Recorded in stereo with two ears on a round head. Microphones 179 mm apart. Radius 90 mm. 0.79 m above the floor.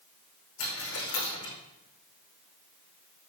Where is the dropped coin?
80° left, 5 m.